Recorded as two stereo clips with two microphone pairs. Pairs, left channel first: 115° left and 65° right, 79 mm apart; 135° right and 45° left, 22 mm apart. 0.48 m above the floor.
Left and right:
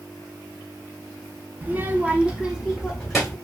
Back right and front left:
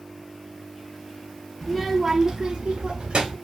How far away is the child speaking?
About 0.5 m.